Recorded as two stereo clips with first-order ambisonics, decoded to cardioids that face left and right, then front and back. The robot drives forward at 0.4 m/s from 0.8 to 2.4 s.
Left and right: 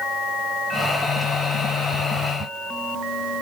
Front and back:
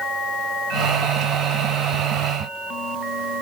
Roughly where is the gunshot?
I don't hear a gunshot.